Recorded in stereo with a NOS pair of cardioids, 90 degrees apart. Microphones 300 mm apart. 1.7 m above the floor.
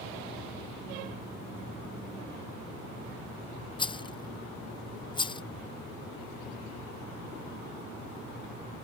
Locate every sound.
3.8 s a rattle: 15° left